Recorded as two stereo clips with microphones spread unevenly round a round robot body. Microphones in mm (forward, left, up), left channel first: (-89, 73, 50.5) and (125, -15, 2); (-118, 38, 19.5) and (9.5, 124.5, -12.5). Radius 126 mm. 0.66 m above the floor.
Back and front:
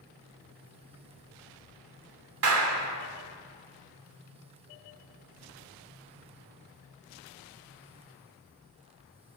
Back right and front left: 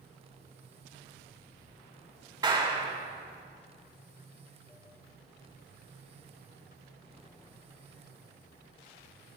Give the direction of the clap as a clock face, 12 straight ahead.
1 o'clock.